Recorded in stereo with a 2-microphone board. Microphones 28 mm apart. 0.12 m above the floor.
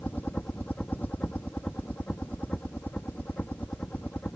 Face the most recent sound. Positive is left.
turn(degrees=75)  # may be behind; listen again after turning